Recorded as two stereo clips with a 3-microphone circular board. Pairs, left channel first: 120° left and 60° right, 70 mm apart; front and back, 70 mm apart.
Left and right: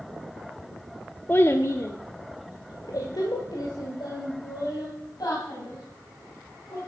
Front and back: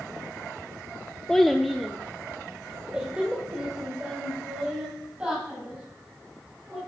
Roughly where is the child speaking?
Left.